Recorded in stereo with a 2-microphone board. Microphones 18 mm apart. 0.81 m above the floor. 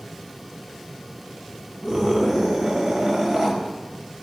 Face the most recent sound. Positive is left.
turn(degrees=-35)  # may be behind; listen again after turning